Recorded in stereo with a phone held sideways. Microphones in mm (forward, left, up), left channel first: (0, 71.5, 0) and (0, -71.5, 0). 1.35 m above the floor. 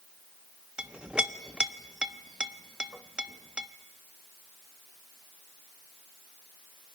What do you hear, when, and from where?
0.8 s a clink: 5° right (ahead or behind), 0.8 m